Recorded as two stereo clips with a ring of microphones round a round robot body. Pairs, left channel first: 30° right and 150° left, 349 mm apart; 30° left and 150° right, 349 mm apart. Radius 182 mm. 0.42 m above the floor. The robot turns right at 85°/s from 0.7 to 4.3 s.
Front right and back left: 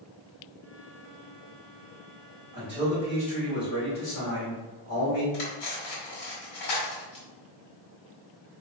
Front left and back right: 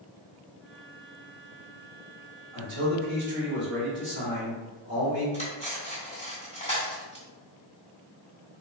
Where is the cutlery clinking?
45° right, 1.8 m.